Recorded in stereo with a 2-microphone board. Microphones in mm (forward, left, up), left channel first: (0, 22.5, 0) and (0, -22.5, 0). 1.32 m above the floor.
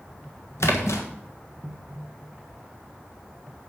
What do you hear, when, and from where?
0.6 s a splash: 75° left (ahead or behind), 1.5 m